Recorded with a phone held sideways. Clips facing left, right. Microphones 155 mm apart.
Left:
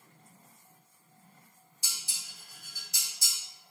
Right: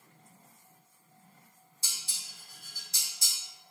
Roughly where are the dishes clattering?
Right.